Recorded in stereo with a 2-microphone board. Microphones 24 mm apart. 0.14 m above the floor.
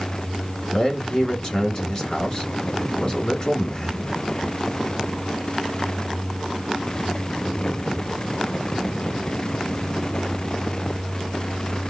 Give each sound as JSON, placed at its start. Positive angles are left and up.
{"t": 0.7, "sound": "a man speaking", "side_deg": 35, "distance_m": 1.3}